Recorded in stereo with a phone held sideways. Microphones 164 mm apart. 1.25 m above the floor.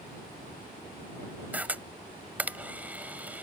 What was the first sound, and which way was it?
A camera shutter, 10° right (ahead or behind).